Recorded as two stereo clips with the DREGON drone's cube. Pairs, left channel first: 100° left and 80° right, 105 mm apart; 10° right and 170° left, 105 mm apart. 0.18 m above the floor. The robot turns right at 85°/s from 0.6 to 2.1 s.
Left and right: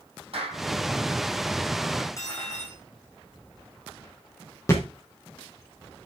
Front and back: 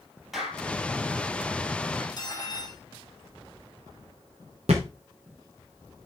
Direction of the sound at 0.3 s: 105° right.